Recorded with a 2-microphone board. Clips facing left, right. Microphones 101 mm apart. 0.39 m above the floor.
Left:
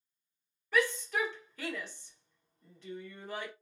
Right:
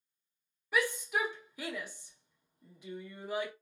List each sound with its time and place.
0.7 s a shout: 10° right (ahead or behind), 1.1 m